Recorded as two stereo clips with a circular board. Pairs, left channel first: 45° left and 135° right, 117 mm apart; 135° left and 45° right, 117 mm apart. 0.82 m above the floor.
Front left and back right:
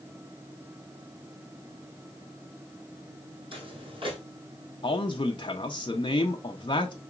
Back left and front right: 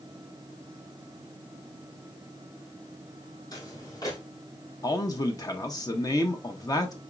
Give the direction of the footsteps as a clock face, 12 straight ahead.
6 o'clock.